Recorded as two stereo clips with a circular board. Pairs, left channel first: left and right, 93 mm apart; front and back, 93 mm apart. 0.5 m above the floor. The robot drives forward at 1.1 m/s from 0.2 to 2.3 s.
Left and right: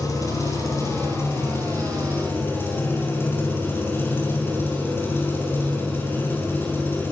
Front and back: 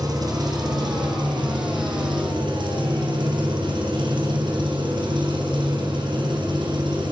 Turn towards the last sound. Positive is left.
turn(degrees=155)